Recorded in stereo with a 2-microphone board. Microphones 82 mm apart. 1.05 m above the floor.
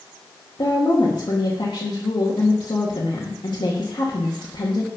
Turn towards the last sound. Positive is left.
turn(degrees=70)  # may be behind; listen again after turning